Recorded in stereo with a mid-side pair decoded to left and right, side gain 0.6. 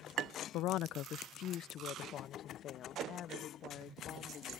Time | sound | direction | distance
0.5 | a woman speaking | 65° left | ?